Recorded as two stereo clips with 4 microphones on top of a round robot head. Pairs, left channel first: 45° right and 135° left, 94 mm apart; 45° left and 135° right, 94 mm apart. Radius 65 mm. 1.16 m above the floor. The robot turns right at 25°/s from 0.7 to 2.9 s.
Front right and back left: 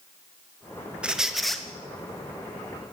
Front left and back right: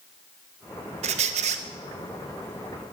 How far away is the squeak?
About 0.9 m.